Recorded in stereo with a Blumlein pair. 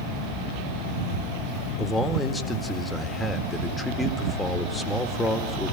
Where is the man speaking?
5° left, 2 m.